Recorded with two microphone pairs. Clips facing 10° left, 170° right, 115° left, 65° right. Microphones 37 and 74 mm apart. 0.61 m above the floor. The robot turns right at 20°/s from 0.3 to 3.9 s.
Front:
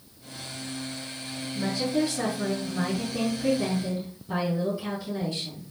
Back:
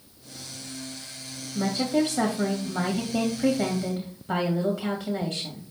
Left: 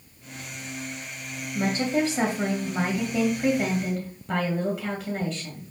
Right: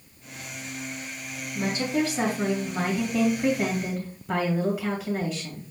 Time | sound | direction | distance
1.6 | a woman speaking | 160° left | 2.5 m